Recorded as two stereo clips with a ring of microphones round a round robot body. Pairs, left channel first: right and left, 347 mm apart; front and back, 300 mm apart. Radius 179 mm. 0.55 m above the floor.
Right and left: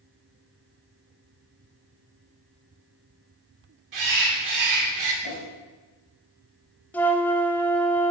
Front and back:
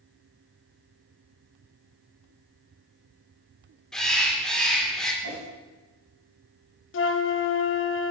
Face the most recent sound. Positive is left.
turn(degrees=-5)